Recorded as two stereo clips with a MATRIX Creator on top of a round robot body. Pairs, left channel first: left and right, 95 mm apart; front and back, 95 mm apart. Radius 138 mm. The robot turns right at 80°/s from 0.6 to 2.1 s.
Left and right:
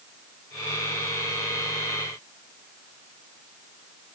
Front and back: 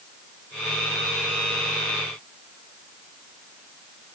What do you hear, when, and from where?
Only background noise.